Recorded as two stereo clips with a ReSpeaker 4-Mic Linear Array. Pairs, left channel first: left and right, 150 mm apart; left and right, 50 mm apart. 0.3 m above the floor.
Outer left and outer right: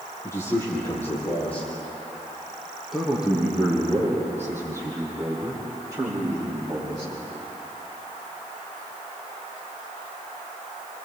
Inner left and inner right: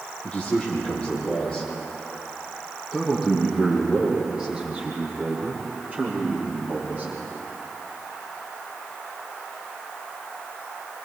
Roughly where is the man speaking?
Left.